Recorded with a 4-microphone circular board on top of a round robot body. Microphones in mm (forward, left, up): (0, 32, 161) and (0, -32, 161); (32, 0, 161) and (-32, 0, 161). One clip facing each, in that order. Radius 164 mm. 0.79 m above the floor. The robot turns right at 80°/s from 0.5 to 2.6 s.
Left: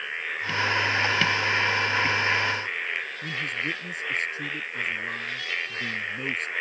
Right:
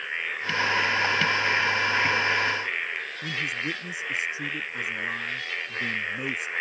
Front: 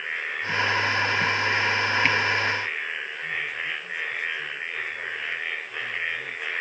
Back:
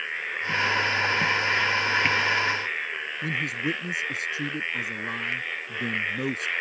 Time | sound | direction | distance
3.2 | a man speaking | 170° right | ?